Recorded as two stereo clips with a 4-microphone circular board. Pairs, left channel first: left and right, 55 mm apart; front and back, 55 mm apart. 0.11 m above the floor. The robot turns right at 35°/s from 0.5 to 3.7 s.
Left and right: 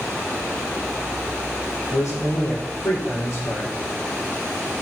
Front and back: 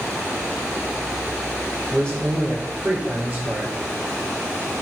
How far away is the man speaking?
About 4 m.